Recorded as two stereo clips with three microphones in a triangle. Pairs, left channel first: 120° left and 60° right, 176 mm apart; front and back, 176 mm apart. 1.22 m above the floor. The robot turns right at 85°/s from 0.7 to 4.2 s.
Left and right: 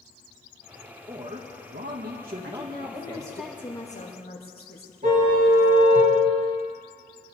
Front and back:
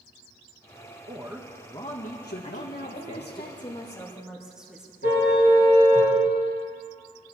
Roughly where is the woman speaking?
Ahead right.